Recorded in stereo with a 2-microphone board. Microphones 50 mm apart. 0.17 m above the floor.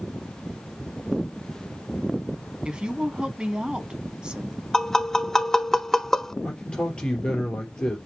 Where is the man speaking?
15° left (ahead or behind), 3 m.